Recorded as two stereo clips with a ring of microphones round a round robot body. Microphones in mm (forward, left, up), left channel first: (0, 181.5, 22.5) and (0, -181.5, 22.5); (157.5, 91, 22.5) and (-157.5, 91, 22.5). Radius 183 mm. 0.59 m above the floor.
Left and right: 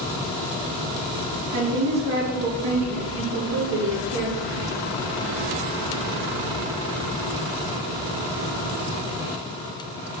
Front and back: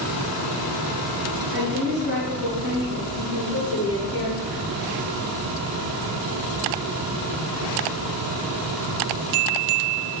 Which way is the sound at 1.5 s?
60° right.